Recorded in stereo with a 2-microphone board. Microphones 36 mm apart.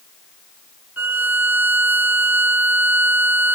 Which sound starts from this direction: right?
A violin, at 1.0 s.